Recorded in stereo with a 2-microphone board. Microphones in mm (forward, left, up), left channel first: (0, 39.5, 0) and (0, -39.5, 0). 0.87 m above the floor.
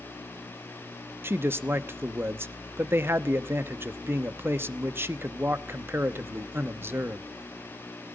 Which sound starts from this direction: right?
A man speaking, at 1.2 s.